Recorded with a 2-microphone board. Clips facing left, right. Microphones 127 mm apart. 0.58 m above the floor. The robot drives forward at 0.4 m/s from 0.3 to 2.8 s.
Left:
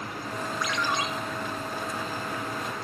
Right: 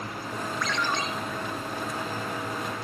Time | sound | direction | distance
0.6 | a ringtone | 10° left (ahead or behind) | 5.5 m